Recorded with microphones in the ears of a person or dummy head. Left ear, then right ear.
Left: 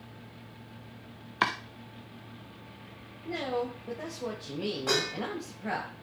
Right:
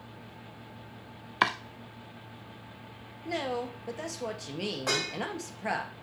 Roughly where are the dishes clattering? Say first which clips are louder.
Left 1 dB; right.